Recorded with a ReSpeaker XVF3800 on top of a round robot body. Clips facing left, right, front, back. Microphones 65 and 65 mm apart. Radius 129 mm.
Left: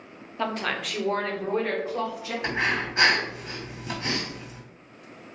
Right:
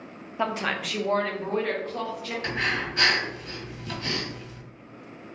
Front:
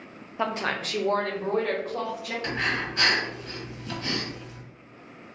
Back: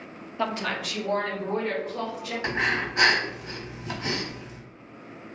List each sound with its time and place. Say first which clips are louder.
0.4 s a woman speaking: right 1 dB, front 1 dB; 40° right, 0.8 m; by 2.3 s 10° left, 2.5 m
2.4 s breathing: left 2 dB, back 3 dB; 135° left, 1.6 m